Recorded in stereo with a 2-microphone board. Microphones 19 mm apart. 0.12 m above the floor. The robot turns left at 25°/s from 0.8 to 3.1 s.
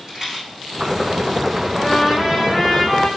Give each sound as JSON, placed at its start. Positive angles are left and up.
{"t": 0.1, "sound": "a rattle", "side_deg": -30, "distance_m": 4.5}
{"t": 1.8, "sound": "a trumpet", "azimuth_deg": -155, "distance_m": 4.5}